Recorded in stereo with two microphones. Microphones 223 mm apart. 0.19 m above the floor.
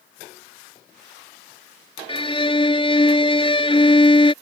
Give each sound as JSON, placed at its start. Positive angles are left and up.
{"t": 2.1, "sound": "a violin", "side_deg": 25}